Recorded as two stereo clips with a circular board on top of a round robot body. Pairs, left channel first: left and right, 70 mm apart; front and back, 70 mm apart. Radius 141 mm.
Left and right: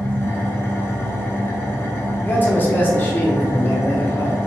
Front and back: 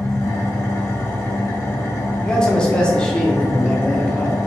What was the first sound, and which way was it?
An engine running, 40° left.